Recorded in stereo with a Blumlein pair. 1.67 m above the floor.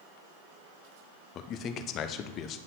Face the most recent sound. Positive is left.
turn(degrees=30)